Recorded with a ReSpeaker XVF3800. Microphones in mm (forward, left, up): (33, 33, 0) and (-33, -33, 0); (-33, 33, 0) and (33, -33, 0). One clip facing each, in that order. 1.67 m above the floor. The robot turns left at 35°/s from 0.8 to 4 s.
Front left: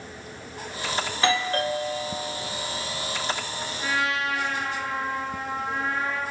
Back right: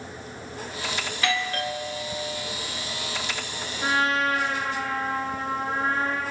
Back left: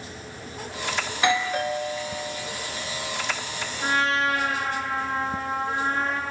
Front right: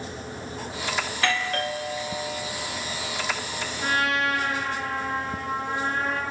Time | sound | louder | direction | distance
1.1 | a doorbell | front left 4 dB, back left 5 dB | 80° left | 0.7 m
3.8 | a trumpet | back right 4 dB, back left 1 dB | 165° right | 3.5 m